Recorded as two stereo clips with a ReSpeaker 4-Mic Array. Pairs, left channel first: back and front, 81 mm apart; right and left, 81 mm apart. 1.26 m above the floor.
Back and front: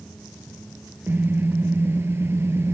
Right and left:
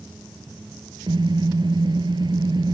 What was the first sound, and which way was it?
A car horn, 65° left.